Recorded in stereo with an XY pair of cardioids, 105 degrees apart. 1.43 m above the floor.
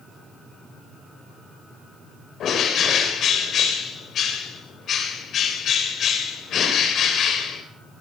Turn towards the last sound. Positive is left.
turn(degrees=65)